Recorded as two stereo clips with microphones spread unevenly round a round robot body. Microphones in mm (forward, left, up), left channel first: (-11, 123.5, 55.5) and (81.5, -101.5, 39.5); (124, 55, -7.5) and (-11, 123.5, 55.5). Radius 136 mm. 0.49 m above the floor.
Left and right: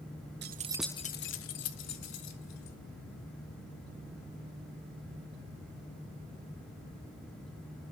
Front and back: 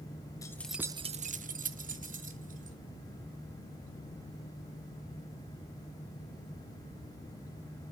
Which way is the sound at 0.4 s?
55° right.